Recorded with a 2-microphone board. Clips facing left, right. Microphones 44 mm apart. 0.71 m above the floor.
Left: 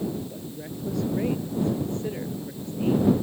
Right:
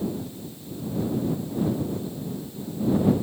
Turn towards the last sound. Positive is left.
turn(degrees=75)  # may be behind; listen again after turning